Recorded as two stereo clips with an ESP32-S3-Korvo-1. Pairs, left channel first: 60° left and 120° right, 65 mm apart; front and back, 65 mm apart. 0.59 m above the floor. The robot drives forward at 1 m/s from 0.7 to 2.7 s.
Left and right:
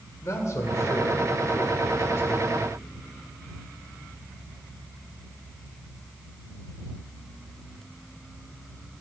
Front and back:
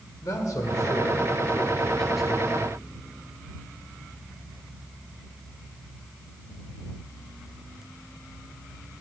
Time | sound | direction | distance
0.2 | a man speaking | 25° left | 1.6 m